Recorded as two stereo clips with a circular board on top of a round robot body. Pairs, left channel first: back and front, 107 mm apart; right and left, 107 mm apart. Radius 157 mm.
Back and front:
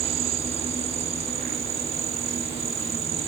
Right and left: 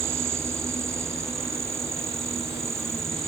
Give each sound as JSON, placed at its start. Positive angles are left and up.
{"t": 0.0, "sound": "an insect", "azimuth_deg": 25}